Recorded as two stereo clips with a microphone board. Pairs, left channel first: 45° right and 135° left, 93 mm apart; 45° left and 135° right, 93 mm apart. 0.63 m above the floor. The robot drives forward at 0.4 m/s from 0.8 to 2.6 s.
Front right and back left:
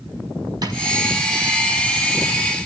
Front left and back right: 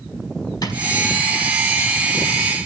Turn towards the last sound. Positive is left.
turn(degrees=115)